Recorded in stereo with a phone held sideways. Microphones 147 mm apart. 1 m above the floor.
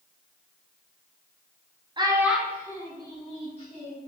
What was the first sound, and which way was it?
A child speaking, 30° right (ahead or behind).